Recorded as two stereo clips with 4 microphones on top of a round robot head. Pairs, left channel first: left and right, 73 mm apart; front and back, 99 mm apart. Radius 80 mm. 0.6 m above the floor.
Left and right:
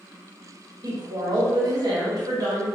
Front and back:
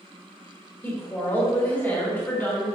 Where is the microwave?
No microwave in this recording.